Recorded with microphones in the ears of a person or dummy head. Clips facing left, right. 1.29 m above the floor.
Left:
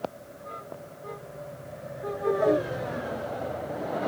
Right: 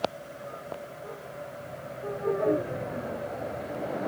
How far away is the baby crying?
I don't hear a baby crying.